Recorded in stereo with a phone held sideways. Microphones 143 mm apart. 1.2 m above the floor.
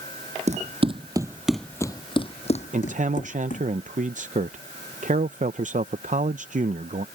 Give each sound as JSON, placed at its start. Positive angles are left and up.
{"t": 0.5, "sound": "running footsteps", "side_deg": -55}
{"t": 2.7, "sound": "a man speaking", "side_deg": -60}